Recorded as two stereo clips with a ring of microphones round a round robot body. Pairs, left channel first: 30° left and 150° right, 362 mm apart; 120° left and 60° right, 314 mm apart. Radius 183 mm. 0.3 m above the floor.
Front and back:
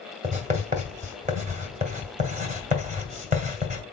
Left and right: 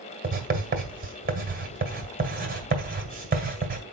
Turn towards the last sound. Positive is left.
turn(degrees=-95)